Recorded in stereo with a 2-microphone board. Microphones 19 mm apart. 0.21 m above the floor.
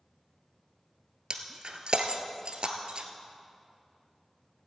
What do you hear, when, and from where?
1.3 s breaking glass: 60° right (ahead or behind), 1.4 m